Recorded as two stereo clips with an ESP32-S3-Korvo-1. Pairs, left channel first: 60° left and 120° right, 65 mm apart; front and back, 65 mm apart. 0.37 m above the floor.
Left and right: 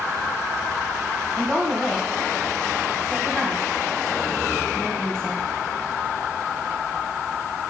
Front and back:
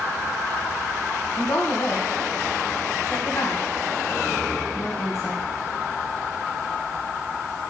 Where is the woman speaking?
20° right, 2.5 m.